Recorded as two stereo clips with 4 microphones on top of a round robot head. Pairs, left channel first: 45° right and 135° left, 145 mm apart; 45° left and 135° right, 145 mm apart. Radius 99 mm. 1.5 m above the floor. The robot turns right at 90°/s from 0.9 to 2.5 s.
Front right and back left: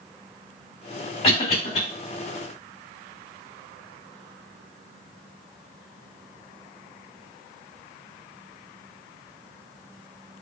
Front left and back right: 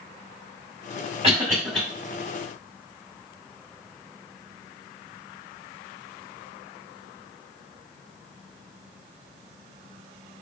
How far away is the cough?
About 1.7 m.